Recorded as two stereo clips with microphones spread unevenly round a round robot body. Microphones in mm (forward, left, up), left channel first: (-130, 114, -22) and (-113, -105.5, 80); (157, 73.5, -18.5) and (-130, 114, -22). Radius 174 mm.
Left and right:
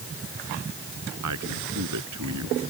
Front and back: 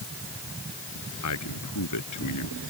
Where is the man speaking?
55° right; by 2.6 s 50° right.